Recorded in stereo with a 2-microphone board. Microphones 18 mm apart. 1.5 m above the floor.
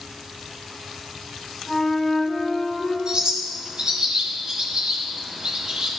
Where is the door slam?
I don't hear a door slam.